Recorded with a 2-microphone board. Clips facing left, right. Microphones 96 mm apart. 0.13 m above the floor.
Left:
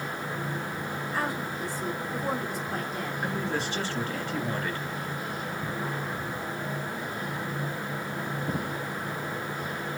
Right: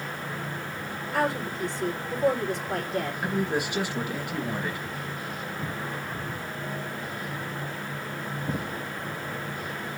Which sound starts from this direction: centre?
A man speaking, at 3.2 s.